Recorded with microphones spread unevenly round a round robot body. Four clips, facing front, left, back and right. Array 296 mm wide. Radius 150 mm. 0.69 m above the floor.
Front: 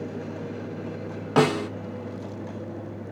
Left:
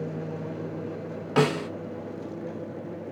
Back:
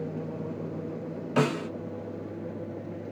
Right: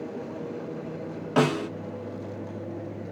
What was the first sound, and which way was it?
A snare drum, 5° right.